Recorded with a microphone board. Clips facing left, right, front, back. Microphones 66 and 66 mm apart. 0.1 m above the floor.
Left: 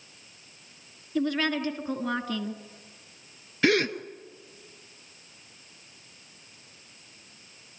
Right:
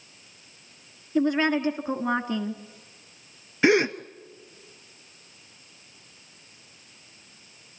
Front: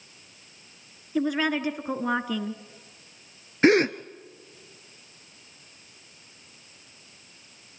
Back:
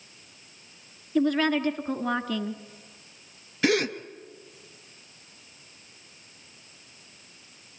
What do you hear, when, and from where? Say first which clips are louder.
1.1 s a woman speaking: right 4 dB, back 2 dB; 65° right, 1.2 m
3.6 s a gasp: right 3 dB, front 5 dB; 30° right, 0.7 m